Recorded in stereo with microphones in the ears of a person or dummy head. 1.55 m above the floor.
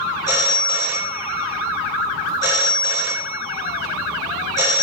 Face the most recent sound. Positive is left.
turn(degrees=-15)  # may be behind; listen again after turning